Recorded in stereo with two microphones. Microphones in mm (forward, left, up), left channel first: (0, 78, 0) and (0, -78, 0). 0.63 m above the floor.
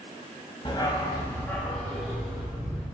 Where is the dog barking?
35° left (ahead or behind), 1.5 m; by 2.9 s 10° right (ahead or behind), 3 m.